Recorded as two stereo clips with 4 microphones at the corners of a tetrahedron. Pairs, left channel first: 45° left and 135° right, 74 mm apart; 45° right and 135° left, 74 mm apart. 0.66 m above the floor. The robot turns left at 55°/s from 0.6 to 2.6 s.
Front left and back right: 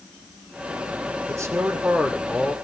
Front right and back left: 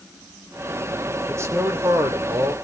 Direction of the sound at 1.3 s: 170° right.